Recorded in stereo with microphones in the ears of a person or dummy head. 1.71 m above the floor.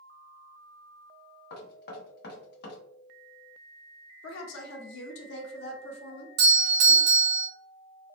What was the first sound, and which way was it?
Knocking, 60° left (ahead or behind).